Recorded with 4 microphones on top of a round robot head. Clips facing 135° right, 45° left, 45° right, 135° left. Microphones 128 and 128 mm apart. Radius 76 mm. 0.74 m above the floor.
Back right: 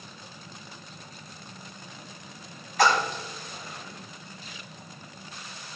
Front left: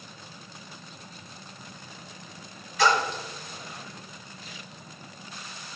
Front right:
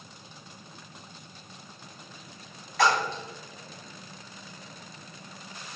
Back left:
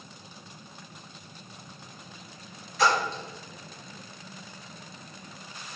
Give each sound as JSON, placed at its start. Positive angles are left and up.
{"t": 2.8, "sound": "a splash", "azimuth_deg": -90, "distance_m": 1.3}